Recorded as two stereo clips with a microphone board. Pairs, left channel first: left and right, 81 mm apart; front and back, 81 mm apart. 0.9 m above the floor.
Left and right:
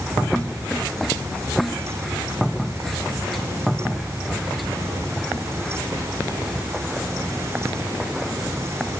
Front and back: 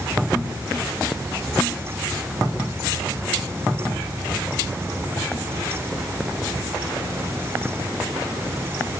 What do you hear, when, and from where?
Only background noise.